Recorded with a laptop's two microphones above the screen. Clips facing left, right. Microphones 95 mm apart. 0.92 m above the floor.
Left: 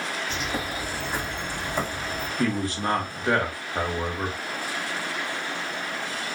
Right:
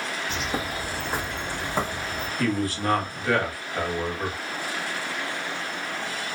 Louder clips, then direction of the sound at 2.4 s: Right 1 dB; 25° left (ahead or behind).